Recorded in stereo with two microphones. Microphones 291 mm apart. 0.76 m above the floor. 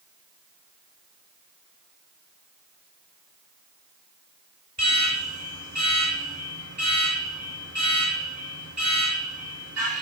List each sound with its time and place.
4.8 s an alarm: 70° right (ahead or behind), 5 m